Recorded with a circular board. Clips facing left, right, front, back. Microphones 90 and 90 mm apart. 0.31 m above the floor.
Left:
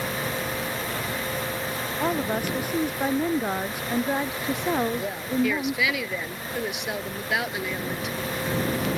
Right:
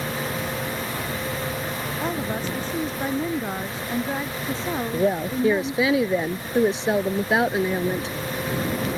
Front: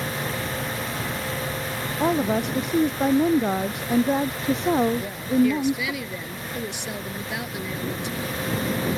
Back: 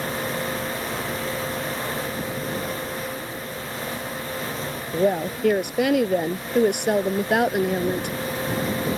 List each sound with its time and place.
2.0 s a woman speaking: 15° left; by 5.9 s 20° left
4.9 s a woman speaking: 145° right